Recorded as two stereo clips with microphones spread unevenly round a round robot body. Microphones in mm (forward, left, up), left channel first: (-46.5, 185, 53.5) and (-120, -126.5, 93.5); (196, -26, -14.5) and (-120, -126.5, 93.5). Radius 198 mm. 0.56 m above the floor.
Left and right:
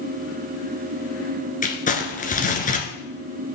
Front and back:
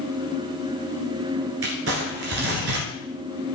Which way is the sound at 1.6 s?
145° left.